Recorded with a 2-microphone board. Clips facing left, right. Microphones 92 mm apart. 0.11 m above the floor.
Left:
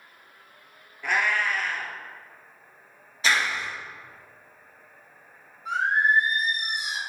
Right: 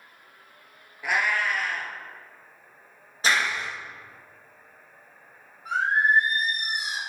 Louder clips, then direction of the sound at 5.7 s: Even; 45° right (ahead or behind).